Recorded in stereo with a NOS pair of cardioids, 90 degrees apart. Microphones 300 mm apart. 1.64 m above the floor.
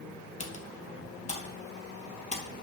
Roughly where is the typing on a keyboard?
Ahead.